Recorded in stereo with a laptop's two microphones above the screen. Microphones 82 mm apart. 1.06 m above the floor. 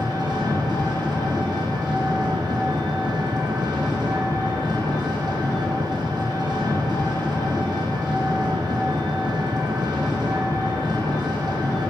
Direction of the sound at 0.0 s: 60° right (ahead or behind).